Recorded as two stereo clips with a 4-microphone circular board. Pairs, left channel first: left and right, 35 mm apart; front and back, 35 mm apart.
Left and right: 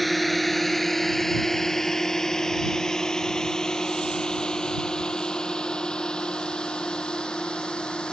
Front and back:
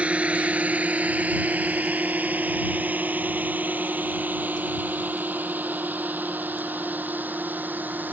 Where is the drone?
175° left; by 8.1 s 150° left.